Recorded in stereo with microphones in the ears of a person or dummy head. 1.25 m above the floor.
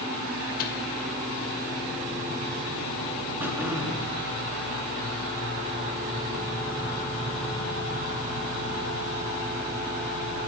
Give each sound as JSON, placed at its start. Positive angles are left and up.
{"t": 0.6, "sound": "a microwave", "side_deg": 50, "distance_m": 1.8}
{"t": 3.4, "sound": "throat clearing", "side_deg": -10, "distance_m": 2.5}